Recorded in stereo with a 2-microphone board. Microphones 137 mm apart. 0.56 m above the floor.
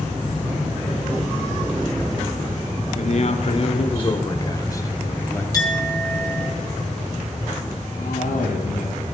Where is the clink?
25° left (ahead or behind), 5 m.